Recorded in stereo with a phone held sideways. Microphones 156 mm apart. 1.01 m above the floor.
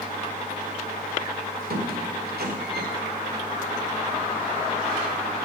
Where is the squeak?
85° right, 2.5 m.